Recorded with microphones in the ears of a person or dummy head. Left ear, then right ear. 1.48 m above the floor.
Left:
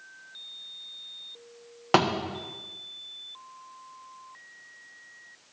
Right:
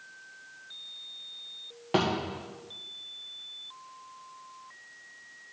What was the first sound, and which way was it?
A thud, 40° left (ahead or behind).